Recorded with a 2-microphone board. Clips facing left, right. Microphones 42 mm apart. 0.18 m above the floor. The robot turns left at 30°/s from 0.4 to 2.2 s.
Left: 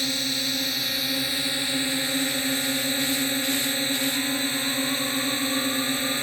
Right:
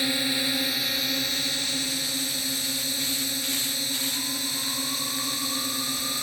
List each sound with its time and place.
0.0 s a drone: 165° right; by 6.2 s 140° left